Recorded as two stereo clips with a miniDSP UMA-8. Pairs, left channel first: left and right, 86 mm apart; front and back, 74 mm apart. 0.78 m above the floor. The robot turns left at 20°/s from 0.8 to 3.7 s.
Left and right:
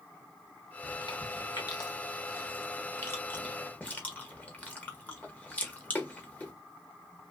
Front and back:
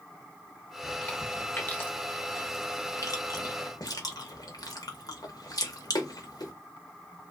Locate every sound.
0.8 s chewing: 75° left, 0.8 m; by 6.5 s 20° left, 0.8 m